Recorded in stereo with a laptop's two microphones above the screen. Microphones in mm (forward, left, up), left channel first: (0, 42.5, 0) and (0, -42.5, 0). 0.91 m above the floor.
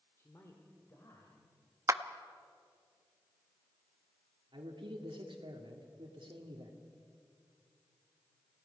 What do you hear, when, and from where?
0.2 s a man speaking: 35° left (ahead or behind), 2.5 m
1.9 s a clap: 35° right (ahead or behind), 0.8 m
4.5 s a man speaking: 80° right, 1.9 m